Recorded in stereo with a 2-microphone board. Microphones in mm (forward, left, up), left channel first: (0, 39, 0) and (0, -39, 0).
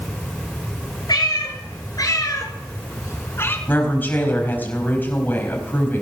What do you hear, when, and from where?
1.1 s a cat meowing: 55° left (ahead or behind), 3.5 m; by 3.6 s 30° left (ahead or behind), 2.0 m
3.7 s a woman speaking: 25° left (ahead or behind), 4.5 m